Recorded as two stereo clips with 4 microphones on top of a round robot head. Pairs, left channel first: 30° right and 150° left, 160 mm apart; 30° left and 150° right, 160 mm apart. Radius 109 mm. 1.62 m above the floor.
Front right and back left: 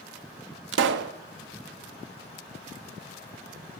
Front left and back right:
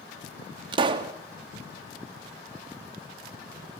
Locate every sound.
0.7 s a pop: 150° left, 0.9 m